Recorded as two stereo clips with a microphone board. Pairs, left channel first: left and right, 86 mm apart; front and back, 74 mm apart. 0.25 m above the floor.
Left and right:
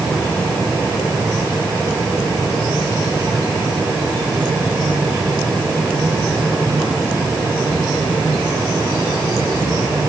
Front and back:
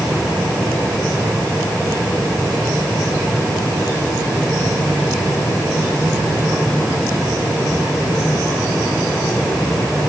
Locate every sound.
Only background noise.